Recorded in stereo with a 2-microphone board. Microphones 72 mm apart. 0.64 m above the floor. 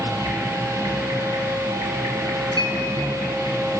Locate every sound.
0.0 s an insect: 50° right (ahead or behind), 7.5 m
2.6 s a clink: 85° right, 4.5 m